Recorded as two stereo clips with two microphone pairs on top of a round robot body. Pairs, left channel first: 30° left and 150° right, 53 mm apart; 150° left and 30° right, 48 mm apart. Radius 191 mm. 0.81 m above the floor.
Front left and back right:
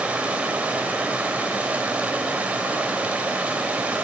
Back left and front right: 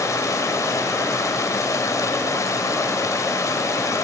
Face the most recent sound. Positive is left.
turn(degrees=145)